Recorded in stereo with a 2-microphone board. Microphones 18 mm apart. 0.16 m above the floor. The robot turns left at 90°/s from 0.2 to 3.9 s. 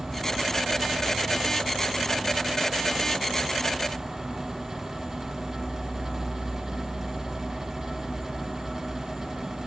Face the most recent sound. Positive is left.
turn(degrees=-50)